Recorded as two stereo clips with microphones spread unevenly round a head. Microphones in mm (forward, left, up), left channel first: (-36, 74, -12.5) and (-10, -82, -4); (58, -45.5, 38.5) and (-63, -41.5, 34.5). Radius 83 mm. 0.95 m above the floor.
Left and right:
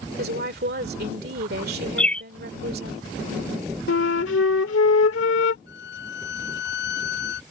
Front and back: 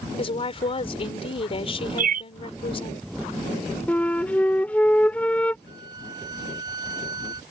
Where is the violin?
110° left.